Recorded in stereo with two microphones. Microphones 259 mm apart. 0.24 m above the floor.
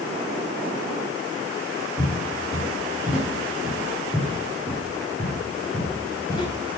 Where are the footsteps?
10° right (ahead or behind), 4.5 m; by 6.5 s 15° left (ahead or behind), 3 m.